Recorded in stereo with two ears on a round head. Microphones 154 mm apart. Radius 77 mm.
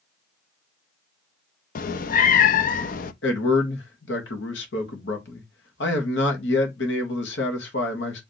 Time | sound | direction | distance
1.8 | a cat meowing | 50° left (ahead or behind) | 0.5 m
3.2 | a man speaking | 75° left (ahead or behind) | 1.7 m